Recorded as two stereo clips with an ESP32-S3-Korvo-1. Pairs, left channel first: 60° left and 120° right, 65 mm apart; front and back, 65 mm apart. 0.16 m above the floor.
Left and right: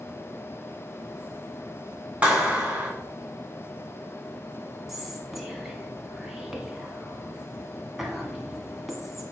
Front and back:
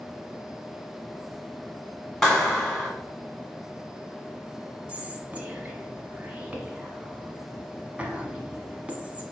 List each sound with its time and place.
2.2 s a clap: 75° right, 1.3 m
4.9 s whispering: 160° left, 1.0 m